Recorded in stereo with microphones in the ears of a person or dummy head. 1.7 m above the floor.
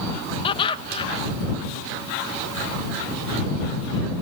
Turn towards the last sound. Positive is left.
turn(degrees=35)  # may be behind; listen again after turning